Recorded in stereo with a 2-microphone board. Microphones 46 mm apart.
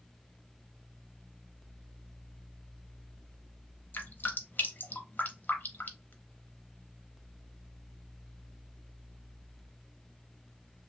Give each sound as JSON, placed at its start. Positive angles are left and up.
{"t": 3.9, "sound": "dripping", "side_deg": 40, "distance_m": 0.6}